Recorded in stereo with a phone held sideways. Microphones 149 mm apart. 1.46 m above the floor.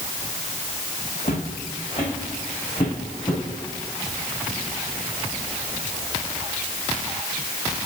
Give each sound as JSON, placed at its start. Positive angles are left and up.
{"t": 1.2, "sound": "footsteps", "side_deg": 45, "distance_m": 4.5}